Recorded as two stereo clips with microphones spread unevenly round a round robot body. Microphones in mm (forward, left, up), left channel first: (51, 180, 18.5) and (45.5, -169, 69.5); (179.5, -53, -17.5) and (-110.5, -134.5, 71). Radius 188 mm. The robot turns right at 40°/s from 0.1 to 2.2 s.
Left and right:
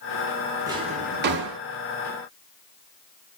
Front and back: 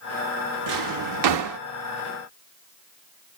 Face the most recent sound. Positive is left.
turn(degrees=-115)